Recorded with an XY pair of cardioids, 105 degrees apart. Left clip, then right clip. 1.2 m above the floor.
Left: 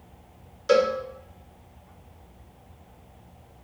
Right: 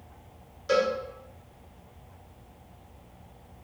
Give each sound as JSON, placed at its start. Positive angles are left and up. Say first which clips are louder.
{"t": 0.7, "sound": "a cowbell", "louder": "left 4 dB", "azimuth_deg": 40, "distance_m": 0.6}